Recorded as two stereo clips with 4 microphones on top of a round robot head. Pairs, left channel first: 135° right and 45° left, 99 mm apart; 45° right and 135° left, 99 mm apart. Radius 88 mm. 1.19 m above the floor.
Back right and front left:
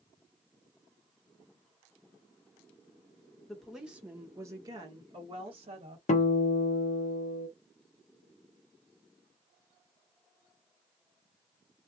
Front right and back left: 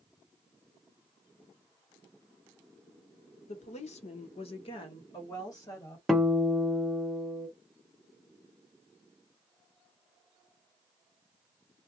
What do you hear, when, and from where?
3.5 s a woman speaking: 50° right, 1.0 m; by 6.0 s 15° left, 1.4 m
6.1 s a guitar: 140° right, 0.7 m